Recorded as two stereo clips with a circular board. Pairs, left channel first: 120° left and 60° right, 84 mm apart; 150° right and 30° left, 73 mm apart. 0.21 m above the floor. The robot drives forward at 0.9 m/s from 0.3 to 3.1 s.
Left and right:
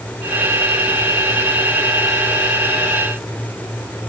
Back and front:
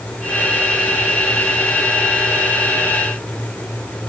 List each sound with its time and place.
Only background noise.